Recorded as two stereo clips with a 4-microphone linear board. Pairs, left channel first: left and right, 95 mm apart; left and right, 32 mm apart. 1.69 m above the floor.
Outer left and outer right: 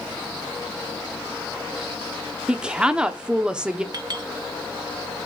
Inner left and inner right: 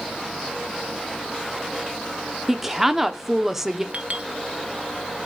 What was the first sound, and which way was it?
A woman speaking, 10° right (ahead or behind).